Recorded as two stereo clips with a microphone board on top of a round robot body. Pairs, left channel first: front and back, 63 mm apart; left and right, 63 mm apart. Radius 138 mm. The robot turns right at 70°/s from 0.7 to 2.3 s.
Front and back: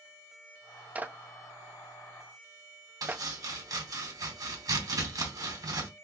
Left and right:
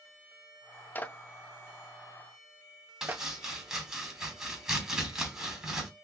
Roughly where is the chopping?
Behind.